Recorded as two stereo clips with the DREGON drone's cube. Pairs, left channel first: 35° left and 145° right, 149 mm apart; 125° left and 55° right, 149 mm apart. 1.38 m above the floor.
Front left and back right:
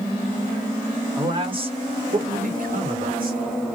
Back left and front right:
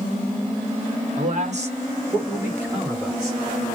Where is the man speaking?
80° right, 1.0 m; by 3.4 s 145° right, 1.3 m.